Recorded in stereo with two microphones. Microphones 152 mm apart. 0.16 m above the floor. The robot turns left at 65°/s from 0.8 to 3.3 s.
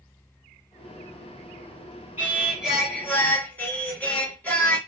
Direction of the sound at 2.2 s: 15° right (ahead or behind).